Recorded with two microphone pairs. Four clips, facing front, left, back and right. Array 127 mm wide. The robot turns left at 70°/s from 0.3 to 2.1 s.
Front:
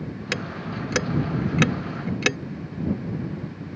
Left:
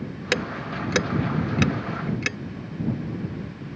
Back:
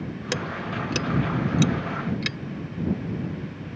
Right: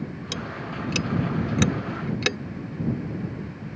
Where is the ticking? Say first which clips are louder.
Left 9 dB, back 2 dB; 100° left; by 2.4 s 25° right.